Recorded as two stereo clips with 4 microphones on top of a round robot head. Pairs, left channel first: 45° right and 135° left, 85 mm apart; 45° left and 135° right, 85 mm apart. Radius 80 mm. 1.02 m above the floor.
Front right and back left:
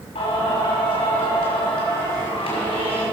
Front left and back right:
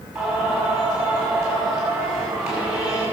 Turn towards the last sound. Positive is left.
turn(degrees=-55)